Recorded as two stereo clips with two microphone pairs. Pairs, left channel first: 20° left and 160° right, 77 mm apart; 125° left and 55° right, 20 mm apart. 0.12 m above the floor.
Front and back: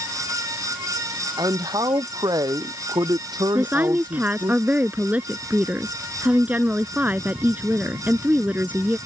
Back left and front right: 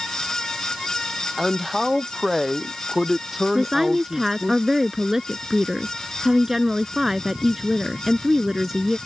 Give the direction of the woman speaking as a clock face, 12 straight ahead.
4 o'clock.